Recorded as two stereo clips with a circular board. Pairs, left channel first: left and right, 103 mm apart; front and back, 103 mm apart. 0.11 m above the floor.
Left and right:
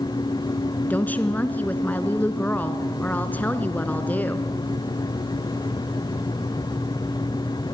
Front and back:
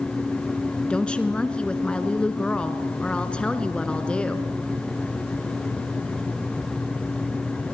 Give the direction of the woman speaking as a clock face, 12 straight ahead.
10 o'clock.